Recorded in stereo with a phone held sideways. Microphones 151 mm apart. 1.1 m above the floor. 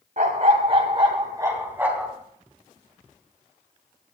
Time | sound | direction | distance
0.2 | a dog barking | 55° right (ahead or behind) | 2.5 m